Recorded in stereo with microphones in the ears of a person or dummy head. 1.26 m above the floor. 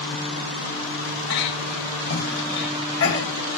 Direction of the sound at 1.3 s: 65° left (ahead or behind).